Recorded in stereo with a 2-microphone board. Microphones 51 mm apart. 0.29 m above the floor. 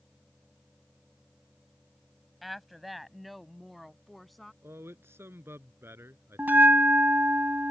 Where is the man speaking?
55° right (ahead or behind).